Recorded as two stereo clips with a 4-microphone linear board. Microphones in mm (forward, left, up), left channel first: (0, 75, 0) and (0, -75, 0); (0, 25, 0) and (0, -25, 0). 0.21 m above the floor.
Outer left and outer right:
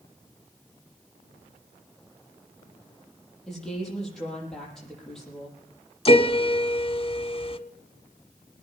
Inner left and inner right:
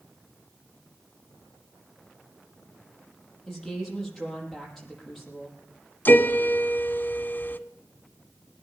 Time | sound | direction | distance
3.5 | a woman speaking | 5° left (ahead or behind) | 7 m
6.0 | a piano | 40° left (ahead or behind) | 1.0 m